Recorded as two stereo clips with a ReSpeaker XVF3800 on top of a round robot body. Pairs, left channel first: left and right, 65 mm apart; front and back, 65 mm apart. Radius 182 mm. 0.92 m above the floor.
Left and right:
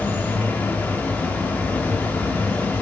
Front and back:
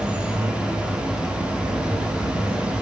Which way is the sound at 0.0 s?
120° left.